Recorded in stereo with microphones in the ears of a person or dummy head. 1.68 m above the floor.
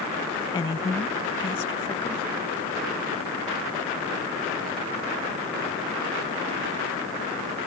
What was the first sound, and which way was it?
A woman speaking, 20° left (ahead or behind).